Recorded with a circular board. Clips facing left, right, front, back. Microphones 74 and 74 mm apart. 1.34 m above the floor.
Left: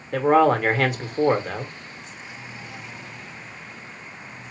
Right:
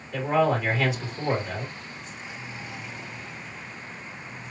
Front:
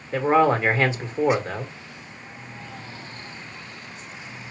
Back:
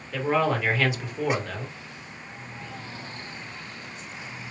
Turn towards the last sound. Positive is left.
turn(degrees=55)